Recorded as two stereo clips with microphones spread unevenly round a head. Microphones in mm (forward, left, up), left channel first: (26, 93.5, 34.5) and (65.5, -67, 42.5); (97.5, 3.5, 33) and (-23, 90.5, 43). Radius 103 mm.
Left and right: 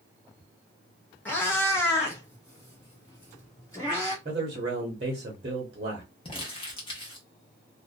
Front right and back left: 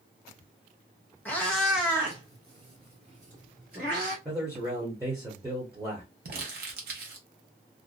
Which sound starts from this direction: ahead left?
A cat meowing, at 1.2 s.